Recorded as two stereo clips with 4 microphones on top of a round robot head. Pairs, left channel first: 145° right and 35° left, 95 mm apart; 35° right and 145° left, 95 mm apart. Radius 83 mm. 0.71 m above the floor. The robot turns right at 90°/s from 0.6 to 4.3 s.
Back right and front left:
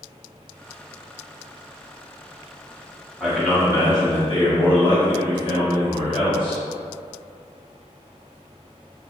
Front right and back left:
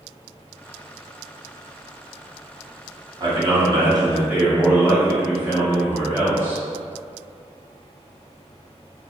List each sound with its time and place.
3.2 s a man speaking: 110° left, 1.3 m; by 6.6 s 150° right, 1.3 m